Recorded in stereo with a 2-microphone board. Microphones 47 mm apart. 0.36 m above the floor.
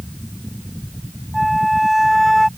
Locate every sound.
1.3 s a flute: centre (ahead or behind)